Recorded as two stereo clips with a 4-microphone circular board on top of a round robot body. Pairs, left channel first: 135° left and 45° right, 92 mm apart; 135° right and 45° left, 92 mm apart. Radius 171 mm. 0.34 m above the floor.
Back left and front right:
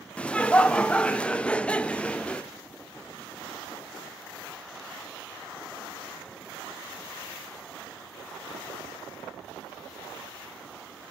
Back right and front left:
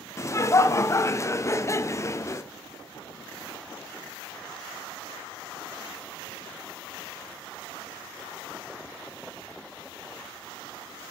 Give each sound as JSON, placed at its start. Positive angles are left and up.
{"t": 0.2, "sound": "laughter", "azimuth_deg": -155, "distance_m": 0.9}